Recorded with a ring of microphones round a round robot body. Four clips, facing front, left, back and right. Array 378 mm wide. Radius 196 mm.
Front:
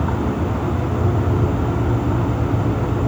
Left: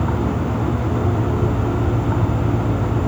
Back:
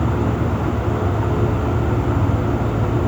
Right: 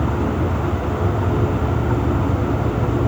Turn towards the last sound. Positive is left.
No sound to turn to.